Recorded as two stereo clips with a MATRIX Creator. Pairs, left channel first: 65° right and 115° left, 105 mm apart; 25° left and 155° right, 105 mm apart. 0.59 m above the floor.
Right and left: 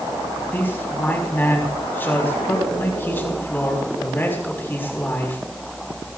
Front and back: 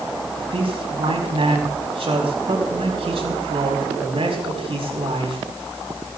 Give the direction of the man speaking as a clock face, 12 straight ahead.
5 o'clock.